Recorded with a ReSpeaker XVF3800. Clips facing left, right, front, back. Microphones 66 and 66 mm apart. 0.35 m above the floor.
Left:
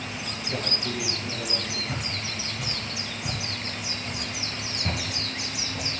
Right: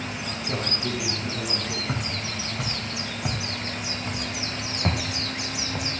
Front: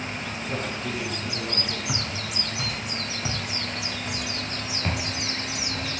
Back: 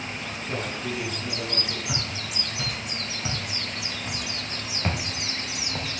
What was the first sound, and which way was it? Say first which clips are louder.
A man speaking: right 2 dB, even; 95° right.